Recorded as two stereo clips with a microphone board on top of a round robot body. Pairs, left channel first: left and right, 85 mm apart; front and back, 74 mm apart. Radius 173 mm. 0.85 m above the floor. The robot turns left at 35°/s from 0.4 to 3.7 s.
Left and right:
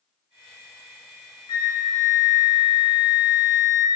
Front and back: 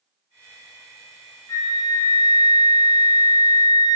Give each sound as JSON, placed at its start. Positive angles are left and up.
{"t": 1.5, "sound": "a flute", "azimuth_deg": 50, "distance_m": 0.5}